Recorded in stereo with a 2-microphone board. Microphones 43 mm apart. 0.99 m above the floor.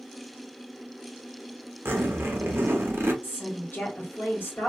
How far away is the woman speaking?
About 1.4 m.